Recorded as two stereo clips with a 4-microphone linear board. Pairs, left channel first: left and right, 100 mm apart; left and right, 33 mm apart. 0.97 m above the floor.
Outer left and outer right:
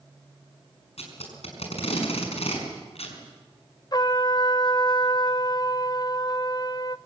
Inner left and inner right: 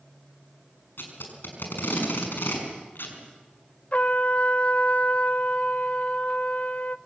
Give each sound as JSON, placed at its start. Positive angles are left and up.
{"t": 1.0, "sound": "tape being pulled", "side_deg": 85, "distance_m": 6.0}
{"t": 3.9, "sound": "a trumpet", "side_deg": 40, "distance_m": 0.6}